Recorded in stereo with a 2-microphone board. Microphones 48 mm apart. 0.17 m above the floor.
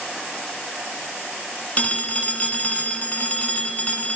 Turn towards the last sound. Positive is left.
turn(degrees=30)  # may be behind; listen again after turning